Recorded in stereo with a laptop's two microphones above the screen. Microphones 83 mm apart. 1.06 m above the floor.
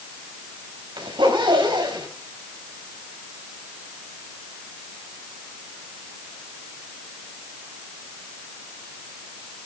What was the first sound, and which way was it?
A zipper, 80° right.